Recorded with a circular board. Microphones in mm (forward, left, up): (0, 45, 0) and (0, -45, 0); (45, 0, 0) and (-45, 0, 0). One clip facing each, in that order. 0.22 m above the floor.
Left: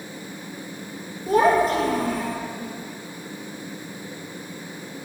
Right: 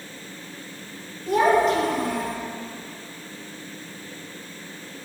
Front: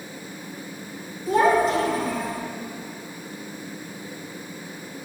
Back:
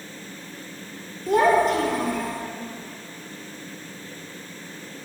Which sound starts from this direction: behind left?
A child speaking, at 1.3 s.